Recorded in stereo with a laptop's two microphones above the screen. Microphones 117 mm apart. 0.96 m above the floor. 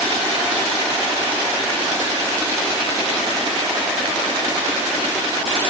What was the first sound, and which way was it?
Only background noise.